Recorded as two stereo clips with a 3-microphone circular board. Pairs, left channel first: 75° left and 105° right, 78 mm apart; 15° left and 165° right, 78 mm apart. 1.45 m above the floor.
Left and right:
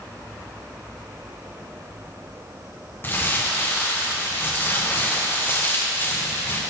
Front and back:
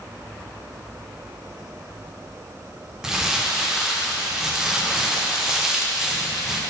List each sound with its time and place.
3.0 s crumpling: 115° left, 0.6 m